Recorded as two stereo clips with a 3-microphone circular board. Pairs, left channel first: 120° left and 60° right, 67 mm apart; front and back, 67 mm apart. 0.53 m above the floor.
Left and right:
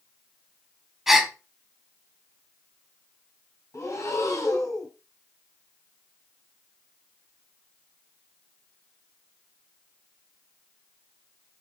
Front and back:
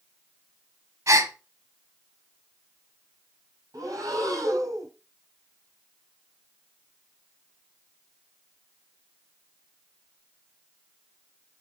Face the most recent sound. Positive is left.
turn(degrees=155)